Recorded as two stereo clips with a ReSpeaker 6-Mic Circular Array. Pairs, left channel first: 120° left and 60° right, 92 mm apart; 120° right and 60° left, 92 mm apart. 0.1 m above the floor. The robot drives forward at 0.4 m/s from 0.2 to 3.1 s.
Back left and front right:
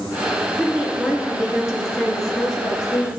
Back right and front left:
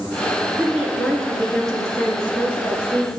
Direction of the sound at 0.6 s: 15° right.